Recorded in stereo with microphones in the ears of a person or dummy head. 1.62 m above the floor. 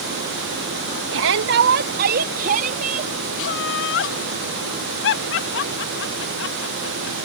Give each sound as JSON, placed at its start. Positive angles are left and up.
{"t": 1.1, "sound": "a shout", "side_deg": -75}
{"t": 3.4, "sound": "laughter", "side_deg": 70}